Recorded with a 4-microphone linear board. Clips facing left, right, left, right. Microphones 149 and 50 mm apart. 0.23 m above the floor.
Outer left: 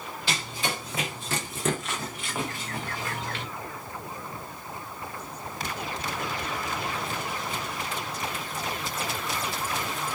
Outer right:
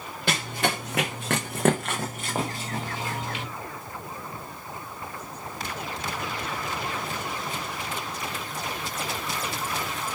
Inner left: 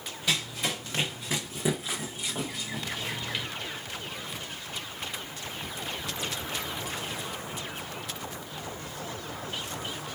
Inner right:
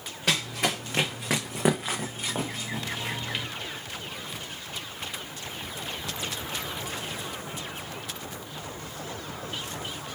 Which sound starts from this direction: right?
Running footsteps, at 0.3 s.